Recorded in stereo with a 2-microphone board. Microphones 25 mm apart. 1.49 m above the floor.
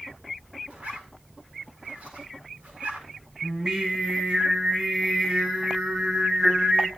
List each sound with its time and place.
0.7 s a zipper: 60° right (ahead or behind), 6 m
3.4 s singing: 30° right (ahead or behind), 6 m